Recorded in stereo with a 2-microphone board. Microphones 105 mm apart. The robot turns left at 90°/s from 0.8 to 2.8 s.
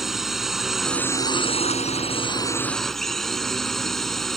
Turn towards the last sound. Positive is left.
turn(degrees=5)